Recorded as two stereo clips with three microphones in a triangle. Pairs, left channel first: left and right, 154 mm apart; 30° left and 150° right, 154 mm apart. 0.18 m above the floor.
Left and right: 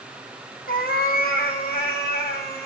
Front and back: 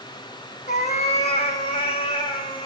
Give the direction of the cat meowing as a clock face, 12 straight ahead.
10 o'clock.